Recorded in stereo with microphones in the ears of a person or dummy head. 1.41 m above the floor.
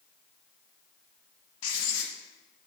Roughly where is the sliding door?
I don't hear a sliding door.